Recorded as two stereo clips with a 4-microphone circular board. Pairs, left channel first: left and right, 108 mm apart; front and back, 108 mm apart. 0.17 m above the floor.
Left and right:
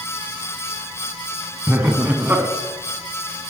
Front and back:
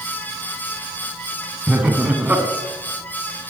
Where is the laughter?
130° right, 1.7 m.